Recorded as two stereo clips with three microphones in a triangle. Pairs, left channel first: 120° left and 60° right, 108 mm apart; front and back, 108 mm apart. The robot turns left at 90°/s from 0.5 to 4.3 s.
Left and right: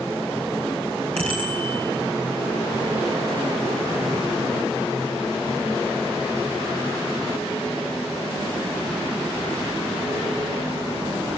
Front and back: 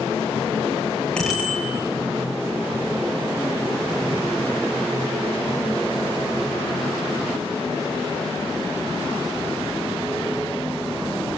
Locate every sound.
1.2 s a bicycle bell: 80° right, 6.5 m; by 1.7 s 130° right, 6.5 m